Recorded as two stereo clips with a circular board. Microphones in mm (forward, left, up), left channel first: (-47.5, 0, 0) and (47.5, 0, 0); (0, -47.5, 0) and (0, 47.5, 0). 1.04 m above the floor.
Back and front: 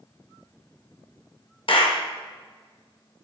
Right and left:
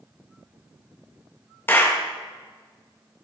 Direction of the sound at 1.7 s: 155° right.